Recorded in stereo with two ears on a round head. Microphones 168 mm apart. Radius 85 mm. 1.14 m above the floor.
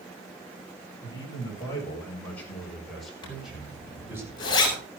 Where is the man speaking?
20° left (ahead or behind), 7.5 m; by 4.2 s 15° right (ahead or behind), 6 m.